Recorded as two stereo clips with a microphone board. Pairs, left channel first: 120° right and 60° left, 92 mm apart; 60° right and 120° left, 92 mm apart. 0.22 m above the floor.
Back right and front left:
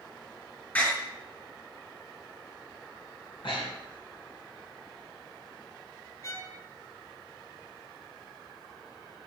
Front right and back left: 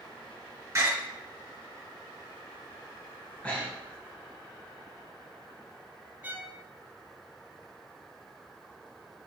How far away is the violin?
About 0.7 m.